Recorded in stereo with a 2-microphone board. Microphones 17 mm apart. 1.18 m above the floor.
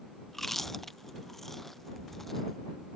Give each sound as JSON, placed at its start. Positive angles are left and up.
{"t": 0.3, "sound": "chewing", "side_deg": 15}